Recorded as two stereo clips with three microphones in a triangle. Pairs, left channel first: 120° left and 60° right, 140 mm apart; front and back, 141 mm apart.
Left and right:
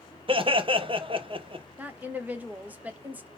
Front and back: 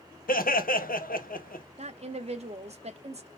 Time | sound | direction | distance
0.3 | laughter | 5° right | 0.8 m
1.8 | a woman speaking | 135° right | 0.9 m